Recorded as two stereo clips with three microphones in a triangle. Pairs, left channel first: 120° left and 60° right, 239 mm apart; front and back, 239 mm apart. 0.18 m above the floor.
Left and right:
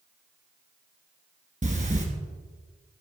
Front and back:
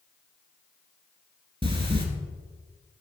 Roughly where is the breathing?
Behind right.